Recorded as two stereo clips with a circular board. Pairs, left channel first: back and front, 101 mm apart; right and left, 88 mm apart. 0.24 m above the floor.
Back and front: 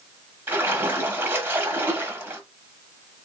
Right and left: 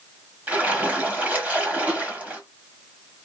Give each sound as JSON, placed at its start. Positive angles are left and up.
{"t": 0.5, "sound": "a splash", "azimuth_deg": 40, "distance_m": 1.1}